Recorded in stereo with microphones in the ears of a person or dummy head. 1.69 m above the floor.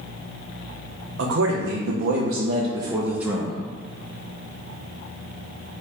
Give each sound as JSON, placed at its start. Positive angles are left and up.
{"t": 1.2, "sound": "a man speaking", "side_deg": -65, "distance_m": 0.8}